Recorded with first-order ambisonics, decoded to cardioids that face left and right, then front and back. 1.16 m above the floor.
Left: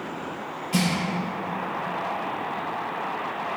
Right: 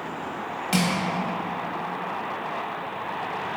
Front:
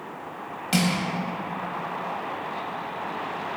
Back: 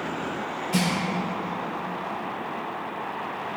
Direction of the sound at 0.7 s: 45° right.